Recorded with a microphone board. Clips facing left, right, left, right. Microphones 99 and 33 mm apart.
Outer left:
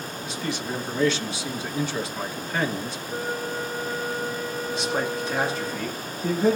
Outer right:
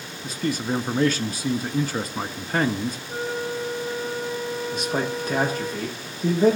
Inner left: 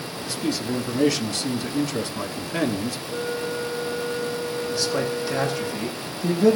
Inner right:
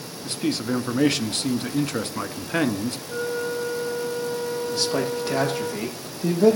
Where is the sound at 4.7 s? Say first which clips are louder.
Outer left 1 dB, even; 50° right (ahead or behind), 6 m.